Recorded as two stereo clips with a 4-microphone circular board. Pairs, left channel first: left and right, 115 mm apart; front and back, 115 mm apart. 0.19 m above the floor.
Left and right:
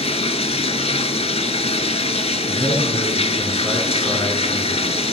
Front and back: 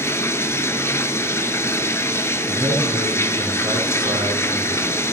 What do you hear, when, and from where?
0.0 s running water: 65° left, 0.7 m
2.5 s a man speaking: 145° left, 2.5 m